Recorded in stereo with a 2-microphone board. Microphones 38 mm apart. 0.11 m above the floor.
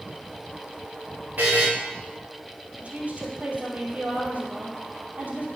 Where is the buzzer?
55° right (ahead or behind), 3 m.